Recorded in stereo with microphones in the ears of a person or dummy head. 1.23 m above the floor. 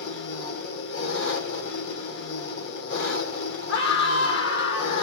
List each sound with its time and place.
0.0 s an engine running: 70° left (ahead or behind), 2.0 m
3.7 s a scream: 65° left (ahead or behind), 1.6 m